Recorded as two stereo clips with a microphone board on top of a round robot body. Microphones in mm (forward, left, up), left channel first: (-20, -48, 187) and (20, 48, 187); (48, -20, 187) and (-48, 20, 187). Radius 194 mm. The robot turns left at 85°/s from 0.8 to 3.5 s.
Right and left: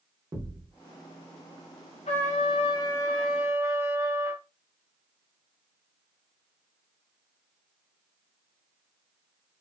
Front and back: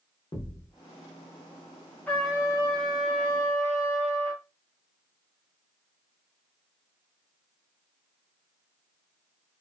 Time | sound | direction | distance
0.3 | a thud | 20° left | 1.0 m
2.1 | a trumpet | 100° right | 0.6 m